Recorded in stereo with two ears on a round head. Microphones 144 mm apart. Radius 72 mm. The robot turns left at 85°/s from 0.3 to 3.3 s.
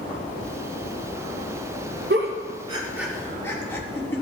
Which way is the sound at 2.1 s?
80° right.